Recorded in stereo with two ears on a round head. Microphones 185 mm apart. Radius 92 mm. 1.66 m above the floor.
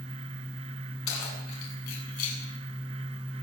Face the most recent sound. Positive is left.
turn(degrees=85)